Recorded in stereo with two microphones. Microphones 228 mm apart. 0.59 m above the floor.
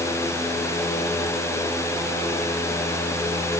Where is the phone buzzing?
No phone buzzing in this recording.